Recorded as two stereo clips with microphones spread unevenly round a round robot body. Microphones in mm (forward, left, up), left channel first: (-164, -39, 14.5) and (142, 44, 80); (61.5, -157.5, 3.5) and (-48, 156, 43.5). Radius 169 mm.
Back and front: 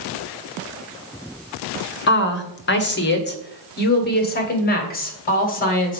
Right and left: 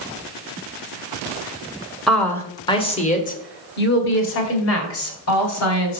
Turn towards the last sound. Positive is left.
turn(degrees=-105)